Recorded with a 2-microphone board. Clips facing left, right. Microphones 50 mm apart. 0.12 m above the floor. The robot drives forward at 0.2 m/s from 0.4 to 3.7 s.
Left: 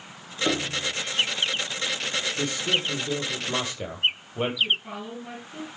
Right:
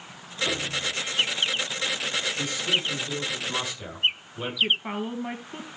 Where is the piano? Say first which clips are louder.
Left 3 dB; 70° left (ahead or behind), 5 m.